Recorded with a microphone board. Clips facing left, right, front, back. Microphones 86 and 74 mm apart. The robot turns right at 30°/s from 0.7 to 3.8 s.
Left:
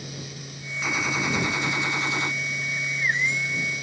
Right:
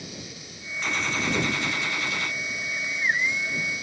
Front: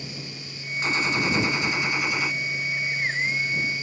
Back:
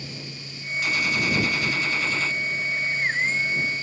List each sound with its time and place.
0.8 s a gunshot: 15° left; by 2.4 s 60° left